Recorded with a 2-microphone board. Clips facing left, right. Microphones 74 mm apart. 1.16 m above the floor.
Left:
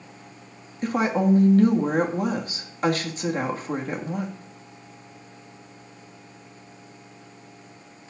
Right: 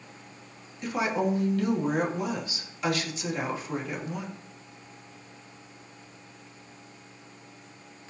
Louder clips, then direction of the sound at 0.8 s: Left 5 dB; 45° left (ahead or behind).